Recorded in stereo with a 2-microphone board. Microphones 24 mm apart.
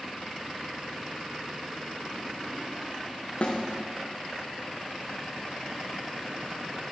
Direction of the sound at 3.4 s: 55° left (ahead or behind).